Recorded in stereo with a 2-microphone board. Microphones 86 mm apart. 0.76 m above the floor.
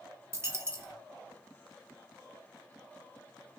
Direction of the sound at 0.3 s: 30° right (ahead or behind).